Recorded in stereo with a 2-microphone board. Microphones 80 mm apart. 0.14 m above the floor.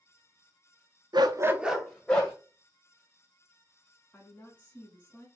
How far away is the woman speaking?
About 1.1 m.